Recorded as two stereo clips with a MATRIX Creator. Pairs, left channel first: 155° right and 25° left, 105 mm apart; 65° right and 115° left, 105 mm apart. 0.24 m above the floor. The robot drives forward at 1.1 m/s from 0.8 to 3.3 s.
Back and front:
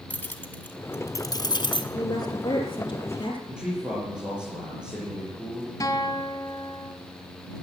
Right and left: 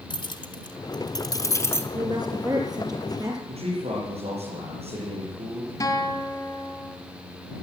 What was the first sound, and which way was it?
Keys jangling, 90° right.